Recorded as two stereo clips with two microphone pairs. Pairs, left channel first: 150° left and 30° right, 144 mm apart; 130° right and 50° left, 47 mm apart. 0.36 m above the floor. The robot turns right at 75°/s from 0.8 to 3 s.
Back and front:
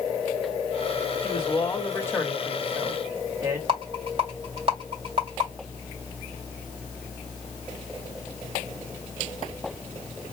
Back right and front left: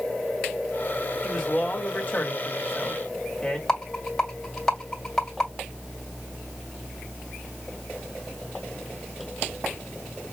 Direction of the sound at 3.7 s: 55° right.